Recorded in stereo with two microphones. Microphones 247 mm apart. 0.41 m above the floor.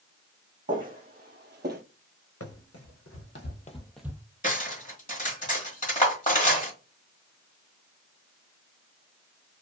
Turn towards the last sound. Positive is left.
turn(degrees=30)  # may be behind; listen again after turning